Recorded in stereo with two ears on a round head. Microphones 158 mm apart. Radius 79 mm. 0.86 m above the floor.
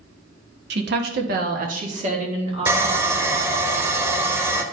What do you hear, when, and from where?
0.7 s a woman speaking: 60° right (ahead or behind), 1.0 m; by 3.7 s 25° right (ahead or behind), 3 m
2.7 s sawing: 15° right (ahead or behind), 0.7 m